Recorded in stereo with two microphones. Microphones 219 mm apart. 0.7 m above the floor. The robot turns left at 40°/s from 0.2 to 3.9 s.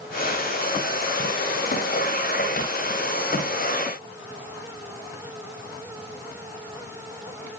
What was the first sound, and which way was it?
Only background noise.